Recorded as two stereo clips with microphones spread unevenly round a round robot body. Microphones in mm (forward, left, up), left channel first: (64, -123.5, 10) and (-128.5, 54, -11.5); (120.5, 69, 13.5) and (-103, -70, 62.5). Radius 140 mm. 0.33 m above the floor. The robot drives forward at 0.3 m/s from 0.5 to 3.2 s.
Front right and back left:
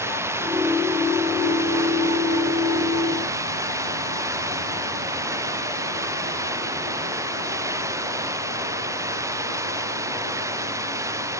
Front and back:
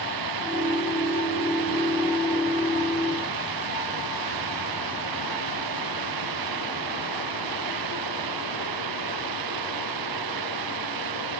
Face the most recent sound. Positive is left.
turn(degrees=-145)